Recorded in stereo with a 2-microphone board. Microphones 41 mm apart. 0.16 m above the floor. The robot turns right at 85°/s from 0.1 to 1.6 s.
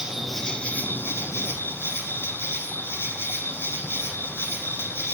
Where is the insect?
15° right, 2.0 m; by 5.2 s 115° left, 2.0 m.